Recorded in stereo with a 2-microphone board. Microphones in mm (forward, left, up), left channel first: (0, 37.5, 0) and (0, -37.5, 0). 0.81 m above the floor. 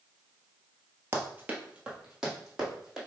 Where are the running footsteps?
30° right (ahead or behind), 1.0 m; by 3.0 s centre (ahead or behind), 2.5 m.